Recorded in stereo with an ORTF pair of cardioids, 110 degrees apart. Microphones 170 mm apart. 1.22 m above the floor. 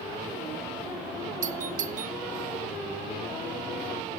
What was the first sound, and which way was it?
A doorbell, 50° right.